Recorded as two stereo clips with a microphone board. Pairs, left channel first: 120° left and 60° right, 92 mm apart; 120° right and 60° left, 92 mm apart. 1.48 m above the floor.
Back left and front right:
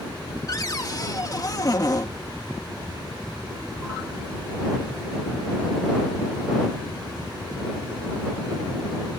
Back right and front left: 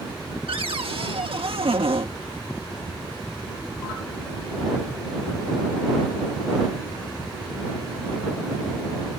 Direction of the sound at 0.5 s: 70° left.